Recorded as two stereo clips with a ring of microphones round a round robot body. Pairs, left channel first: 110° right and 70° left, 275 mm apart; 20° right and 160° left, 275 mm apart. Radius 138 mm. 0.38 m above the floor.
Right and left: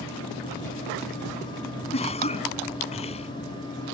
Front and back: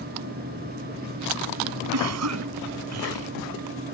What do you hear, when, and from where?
1.9 s a cough: straight behind